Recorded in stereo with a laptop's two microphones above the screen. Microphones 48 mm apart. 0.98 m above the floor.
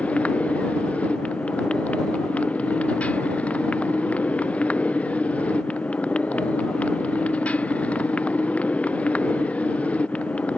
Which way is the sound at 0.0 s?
25° left (ahead or behind).